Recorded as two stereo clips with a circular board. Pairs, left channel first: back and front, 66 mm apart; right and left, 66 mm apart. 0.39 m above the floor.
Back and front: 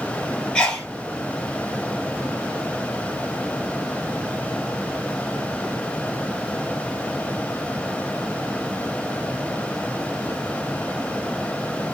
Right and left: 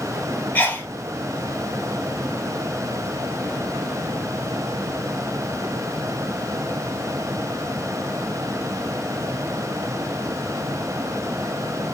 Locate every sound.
0.6 s a sneeze: 115° right, 1.2 m